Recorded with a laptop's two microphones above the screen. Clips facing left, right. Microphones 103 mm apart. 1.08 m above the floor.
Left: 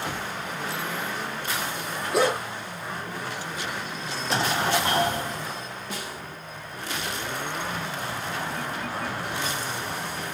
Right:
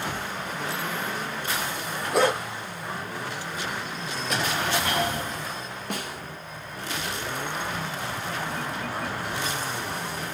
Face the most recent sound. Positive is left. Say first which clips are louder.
# right 4 dB
turn(degrees=-65)  # may be behind; listen again after turning